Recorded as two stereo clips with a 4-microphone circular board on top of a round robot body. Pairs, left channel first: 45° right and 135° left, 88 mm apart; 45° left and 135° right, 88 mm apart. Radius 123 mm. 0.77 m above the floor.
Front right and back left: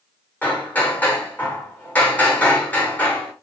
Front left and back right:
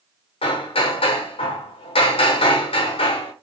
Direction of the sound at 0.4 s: 25° left.